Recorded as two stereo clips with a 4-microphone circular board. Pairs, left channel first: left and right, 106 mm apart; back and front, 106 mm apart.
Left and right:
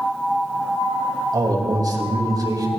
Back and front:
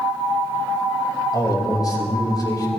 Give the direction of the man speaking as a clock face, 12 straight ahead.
5 o'clock.